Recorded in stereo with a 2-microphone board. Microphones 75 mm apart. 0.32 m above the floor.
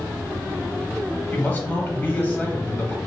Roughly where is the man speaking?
Left.